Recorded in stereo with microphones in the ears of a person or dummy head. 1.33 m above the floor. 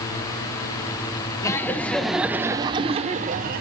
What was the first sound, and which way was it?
Laughter, 15° left (ahead or behind).